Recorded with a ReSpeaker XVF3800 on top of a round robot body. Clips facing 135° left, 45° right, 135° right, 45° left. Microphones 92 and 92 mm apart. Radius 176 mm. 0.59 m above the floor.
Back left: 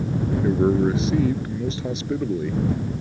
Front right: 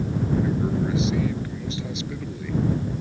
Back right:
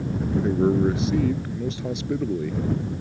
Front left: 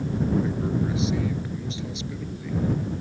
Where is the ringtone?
I don't hear a ringtone.